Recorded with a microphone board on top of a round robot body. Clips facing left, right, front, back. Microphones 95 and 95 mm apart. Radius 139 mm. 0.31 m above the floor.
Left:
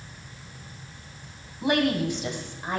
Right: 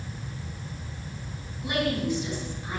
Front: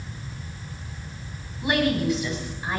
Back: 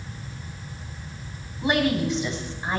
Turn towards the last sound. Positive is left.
turn(degrees=125)